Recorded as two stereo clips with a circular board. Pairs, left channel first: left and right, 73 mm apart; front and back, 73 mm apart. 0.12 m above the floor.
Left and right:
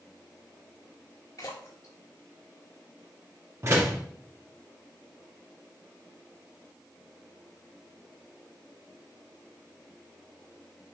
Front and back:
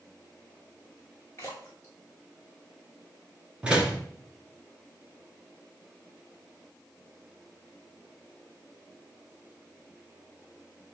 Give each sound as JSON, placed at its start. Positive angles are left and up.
{"t": 1.4, "sound": "a splash", "azimuth_deg": 55, "distance_m": 2.5}
{"t": 3.6, "sound": "a door slam", "azimuth_deg": -110, "distance_m": 1.5}